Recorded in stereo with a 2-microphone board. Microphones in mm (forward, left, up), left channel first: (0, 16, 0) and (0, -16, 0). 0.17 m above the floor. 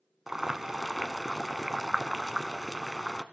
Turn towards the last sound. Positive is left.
turn(degrees=-10)  # may be behind; listen again after turning